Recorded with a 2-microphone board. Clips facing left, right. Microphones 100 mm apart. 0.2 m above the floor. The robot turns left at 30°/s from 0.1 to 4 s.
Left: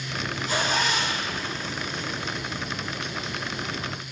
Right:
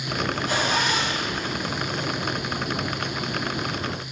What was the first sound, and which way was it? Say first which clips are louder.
A zipper: right 1 dB; 70° right (ahead or behind).